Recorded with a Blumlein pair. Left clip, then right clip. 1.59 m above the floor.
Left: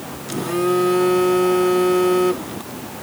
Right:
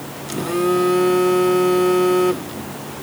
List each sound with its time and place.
0.3 s a phone buzzing: straight ahead